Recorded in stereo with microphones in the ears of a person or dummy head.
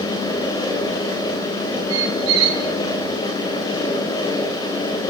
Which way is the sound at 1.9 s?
85° right.